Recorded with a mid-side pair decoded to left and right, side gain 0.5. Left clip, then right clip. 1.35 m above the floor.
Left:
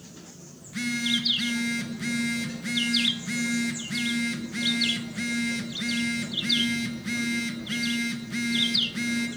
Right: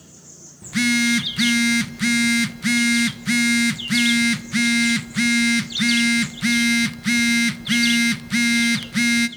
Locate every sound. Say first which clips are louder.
0.6 s a phone buzzing: right 9 dB; 65° right, 1.0 m